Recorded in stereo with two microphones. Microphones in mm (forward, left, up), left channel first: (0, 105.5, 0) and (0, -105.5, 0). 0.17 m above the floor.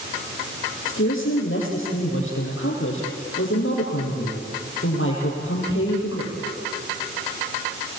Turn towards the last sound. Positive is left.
turn(degrees=75)  # may be behind; listen again after turning